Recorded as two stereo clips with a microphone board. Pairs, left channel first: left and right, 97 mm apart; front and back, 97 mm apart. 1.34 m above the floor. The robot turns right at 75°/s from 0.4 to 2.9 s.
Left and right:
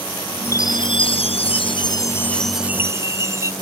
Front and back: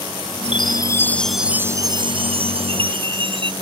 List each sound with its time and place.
0.4 s a chime: 25° left; by 3.5 s 150° right